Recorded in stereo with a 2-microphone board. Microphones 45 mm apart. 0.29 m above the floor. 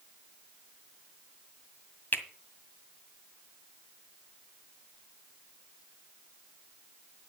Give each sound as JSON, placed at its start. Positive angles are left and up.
{"t": 2.1, "sound": "a finger snap", "side_deg": 50, "distance_m": 1.9}